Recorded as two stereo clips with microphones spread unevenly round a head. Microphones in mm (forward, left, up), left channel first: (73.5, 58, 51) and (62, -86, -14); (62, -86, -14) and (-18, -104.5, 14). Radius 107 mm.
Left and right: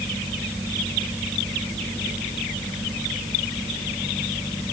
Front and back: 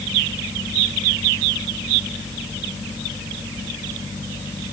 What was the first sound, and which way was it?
Only background noise.